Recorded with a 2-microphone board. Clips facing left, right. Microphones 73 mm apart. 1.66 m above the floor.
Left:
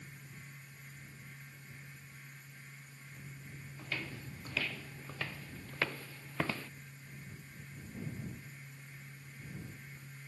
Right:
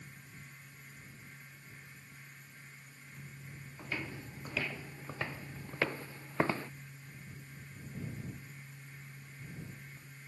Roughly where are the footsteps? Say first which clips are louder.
Right 2 dB; centre.